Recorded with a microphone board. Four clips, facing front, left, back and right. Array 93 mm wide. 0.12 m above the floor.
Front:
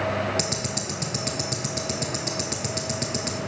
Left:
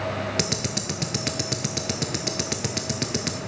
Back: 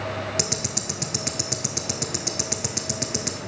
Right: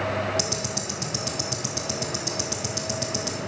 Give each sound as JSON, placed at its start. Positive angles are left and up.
{"t": 0.4, "sound": "ticking", "azimuth_deg": 100, "distance_m": 1.0}